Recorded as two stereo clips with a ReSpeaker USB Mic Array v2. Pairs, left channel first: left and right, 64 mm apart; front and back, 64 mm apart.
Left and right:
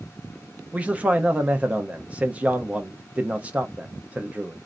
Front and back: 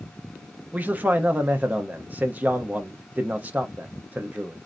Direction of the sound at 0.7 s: 140° right.